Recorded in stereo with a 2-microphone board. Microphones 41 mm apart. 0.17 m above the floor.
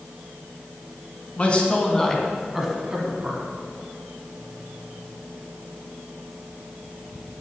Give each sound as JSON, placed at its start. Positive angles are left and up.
{"t": 1.4, "sound": "a man speaking", "side_deg": 30, "distance_m": 1.3}